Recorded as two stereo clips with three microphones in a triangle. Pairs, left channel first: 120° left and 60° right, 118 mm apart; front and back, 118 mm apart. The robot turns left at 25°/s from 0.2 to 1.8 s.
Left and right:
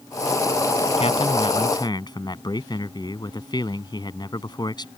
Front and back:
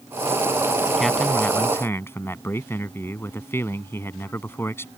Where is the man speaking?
90° left; by 4.9 s 70° left.